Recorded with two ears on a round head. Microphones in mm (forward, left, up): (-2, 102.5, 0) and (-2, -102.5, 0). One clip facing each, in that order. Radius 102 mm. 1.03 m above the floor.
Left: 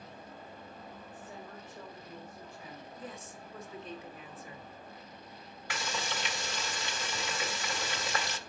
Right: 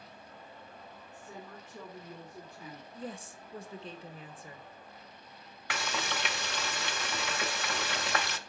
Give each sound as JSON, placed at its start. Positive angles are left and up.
{"t": 1.1, "sound": "a woman speaking", "side_deg": -80, "distance_m": 2.5}
{"t": 2.9, "sound": "a woman speaking", "side_deg": -30, "distance_m": 0.9}
{"t": 5.7, "sound": "frying", "side_deg": -50, "distance_m": 0.7}